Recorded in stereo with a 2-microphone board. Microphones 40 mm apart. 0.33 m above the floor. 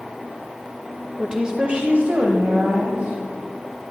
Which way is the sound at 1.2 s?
10° right (ahead or behind).